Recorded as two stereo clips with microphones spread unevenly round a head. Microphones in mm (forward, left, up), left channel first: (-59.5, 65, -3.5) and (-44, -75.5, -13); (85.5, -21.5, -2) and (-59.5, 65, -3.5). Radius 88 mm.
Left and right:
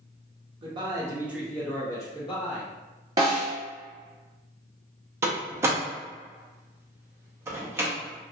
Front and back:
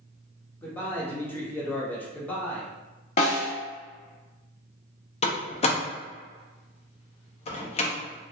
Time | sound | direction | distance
0.6 | a man speaking | 105° right | 0.7 m
3.2 | a snare drum | 30° right | 1.5 m
5.2 | a door slam | 15° right | 0.6 m